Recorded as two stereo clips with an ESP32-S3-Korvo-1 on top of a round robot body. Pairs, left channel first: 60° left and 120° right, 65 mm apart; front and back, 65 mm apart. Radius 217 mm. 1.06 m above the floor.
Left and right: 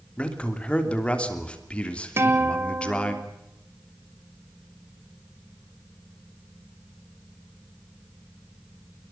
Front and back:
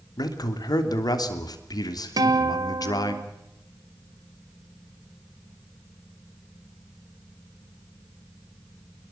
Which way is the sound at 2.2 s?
170° right.